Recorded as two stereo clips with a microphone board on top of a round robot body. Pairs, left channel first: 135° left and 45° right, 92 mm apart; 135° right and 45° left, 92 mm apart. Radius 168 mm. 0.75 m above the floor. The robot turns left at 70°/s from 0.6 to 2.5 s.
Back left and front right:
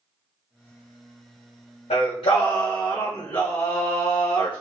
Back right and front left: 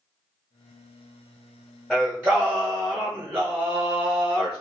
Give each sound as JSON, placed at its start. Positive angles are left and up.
{"t": 1.9, "sound": "singing", "azimuth_deg": 135, "distance_m": 0.7}